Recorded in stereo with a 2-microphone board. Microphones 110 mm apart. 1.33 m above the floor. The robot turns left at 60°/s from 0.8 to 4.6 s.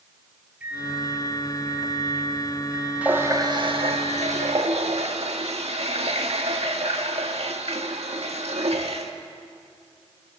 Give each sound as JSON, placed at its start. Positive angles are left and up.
{"t": 0.6, "sound": "a microwave", "azimuth_deg": -15, "distance_m": 6.5}
{"t": 3.0, "sound": "a running tap", "azimuth_deg": -15, "distance_m": 1.6}